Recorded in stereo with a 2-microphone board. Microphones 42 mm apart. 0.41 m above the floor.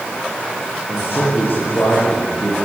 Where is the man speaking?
60° left (ahead or behind), 8.5 m.